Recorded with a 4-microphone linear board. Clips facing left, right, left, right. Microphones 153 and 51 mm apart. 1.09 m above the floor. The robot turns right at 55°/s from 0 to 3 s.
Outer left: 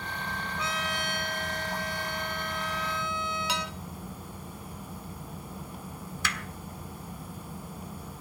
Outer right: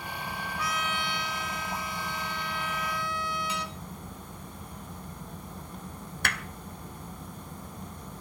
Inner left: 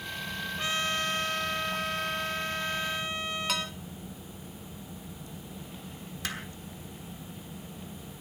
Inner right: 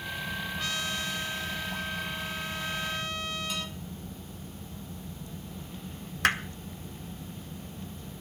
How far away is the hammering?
About 1.3 m.